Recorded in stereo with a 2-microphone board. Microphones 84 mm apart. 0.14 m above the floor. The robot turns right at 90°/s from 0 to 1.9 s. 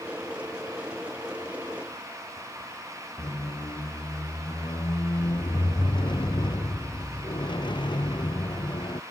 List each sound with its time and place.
3.2 s a squeak: 70° left (ahead or behind)